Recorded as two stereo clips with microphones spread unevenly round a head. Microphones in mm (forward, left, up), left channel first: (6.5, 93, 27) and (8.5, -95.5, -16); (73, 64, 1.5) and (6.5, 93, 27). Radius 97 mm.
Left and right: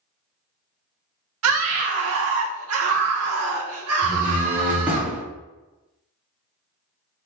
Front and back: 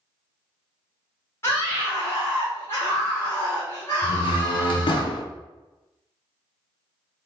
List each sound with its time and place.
1.4 s a scream: 110° right, 0.8 m
4.0 s a door slam: straight ahead, 0.9 m